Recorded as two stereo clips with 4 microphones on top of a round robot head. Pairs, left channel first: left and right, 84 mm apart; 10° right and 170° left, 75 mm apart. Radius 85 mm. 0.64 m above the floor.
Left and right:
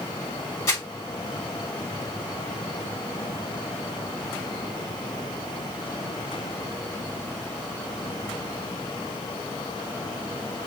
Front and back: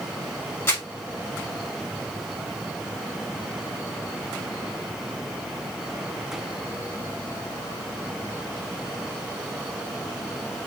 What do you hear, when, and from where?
0.7 s crumpling: 50° left, 2.5 m